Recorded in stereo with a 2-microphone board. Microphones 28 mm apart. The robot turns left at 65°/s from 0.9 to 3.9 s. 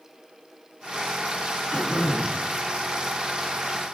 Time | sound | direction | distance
1.7 | throat clearing | 25° left | 3 m